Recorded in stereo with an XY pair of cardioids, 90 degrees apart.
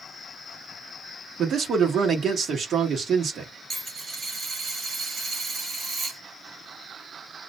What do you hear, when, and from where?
1.4 s a man speaking: 65° right, 1.1 m
3.7 s a dropped coin: 45° right, 1.5 m